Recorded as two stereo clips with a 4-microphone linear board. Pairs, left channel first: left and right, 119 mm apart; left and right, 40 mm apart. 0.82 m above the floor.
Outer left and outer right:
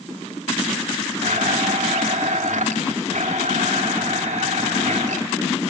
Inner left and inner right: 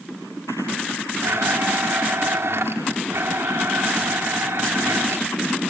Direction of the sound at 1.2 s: 75° right (ahead or behind).